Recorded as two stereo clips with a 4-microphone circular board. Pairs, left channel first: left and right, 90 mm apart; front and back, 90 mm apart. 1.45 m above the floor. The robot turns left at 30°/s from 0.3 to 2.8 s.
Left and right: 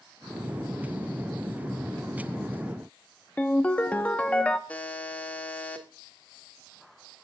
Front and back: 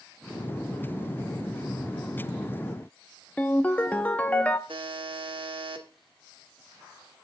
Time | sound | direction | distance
3.4 | a ringtone | 45° left | 0.9 m
4.7 | a buzzer | 165° left | 1.7 m